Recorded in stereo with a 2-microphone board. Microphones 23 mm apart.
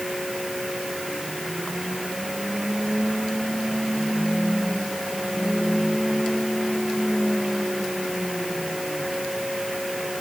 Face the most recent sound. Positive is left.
No sound to turn to.